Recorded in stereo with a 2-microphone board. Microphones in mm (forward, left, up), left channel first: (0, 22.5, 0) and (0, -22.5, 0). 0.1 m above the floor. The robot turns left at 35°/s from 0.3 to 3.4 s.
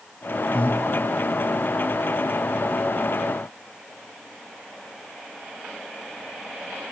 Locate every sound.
0.5 s breathing: 30° left (ahead or behind), 4.5 m; by 0.8 s 40° left (ahead or behind), 4.5 m